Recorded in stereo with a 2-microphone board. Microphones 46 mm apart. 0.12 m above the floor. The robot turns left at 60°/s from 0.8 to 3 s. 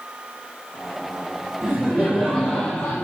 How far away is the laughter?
About 4.5 m.